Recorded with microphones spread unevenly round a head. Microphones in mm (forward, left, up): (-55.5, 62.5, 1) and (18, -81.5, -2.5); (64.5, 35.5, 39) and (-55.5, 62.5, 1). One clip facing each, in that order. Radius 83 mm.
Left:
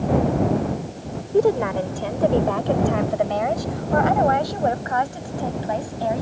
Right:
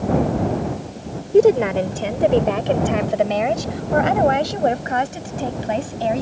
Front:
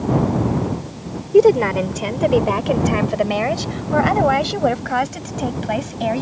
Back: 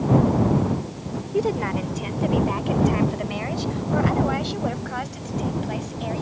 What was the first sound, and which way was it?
A woman speaking, 5° left.